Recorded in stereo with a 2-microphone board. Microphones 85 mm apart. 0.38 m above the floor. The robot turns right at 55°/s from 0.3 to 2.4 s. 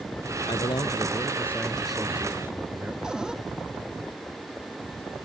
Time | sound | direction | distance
0.5 | a man speaking | 100° left | ?
3.0 | a cupboard door | 10° right (ahead or behind) | ?